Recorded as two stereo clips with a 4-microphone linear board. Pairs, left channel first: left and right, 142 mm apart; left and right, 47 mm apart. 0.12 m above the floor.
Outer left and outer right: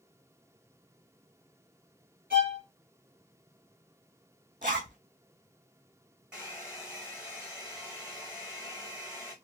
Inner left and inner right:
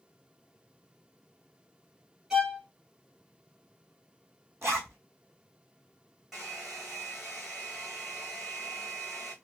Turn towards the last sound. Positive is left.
turn(degrees=-5)  # may be behind; listen again after turning